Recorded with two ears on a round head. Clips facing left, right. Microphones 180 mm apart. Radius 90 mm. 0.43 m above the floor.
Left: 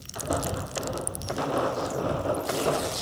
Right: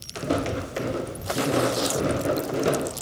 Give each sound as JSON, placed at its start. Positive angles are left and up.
{"t": 0.1, "sound": "footsteps", "side_deg": -30}